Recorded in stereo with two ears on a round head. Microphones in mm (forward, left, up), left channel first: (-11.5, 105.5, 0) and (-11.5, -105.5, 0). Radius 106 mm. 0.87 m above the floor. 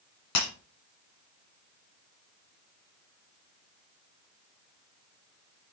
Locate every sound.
0.3 s breaking glass: 80° left, 4.5 m